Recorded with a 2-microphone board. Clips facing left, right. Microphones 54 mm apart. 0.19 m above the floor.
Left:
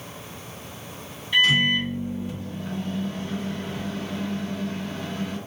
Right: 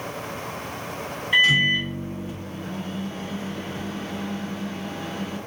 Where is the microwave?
20° right (ahead or behind), 1.5 m.